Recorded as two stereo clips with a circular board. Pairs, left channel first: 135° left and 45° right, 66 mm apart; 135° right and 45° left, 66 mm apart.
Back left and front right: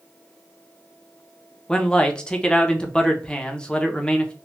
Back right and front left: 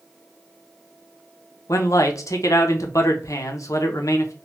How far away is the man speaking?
About 0.6 m.